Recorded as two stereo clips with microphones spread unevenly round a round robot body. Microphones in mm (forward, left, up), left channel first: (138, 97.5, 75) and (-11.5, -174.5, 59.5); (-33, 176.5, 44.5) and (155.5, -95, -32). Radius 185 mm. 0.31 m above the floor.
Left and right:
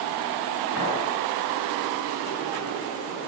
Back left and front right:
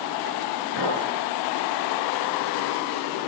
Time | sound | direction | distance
0.8 | a clink | 120° left | 3.5 m